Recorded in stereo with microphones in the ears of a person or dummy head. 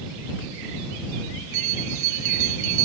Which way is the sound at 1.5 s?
40° right (ahead or behind).